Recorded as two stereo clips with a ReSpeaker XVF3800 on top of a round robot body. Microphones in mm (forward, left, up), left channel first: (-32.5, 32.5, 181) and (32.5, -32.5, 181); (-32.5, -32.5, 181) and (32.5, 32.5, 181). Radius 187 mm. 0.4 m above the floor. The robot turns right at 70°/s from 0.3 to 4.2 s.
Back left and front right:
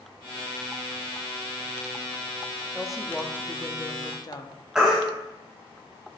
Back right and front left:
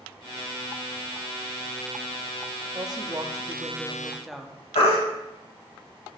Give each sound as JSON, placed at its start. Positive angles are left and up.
{"t": 2.8, "sound": "a woman speaking", "azimuth_deg": 30, "distance_m": 1.0}
{"t": 4.8, "sound": "a baby crying", "azimuth_deg": -130, "distance_m": 1.6}